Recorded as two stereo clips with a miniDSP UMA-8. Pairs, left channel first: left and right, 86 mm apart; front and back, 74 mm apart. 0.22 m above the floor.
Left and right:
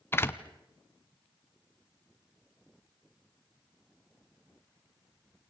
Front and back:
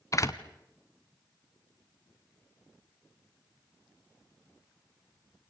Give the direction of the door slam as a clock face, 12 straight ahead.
11 o'clock.